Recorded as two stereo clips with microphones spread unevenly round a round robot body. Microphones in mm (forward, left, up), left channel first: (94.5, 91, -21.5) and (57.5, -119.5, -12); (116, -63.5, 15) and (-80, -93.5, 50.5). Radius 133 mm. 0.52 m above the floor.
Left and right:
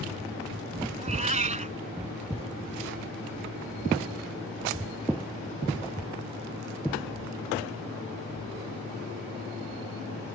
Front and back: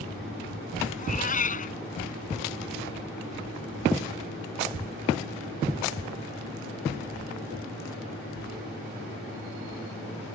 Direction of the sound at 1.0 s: 45° right.